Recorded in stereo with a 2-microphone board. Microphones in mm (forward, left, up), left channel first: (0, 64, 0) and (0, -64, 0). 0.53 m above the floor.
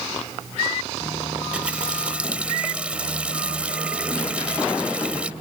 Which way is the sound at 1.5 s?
10° right (ahead or behind).